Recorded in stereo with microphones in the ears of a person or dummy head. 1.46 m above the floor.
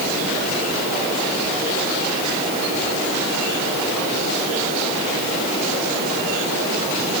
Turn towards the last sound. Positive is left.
No sound to turn to.